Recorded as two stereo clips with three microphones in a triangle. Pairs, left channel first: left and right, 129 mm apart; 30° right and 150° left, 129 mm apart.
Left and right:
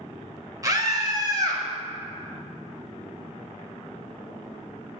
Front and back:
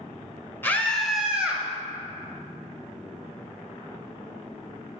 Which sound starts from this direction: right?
A scream, at 0.6 s.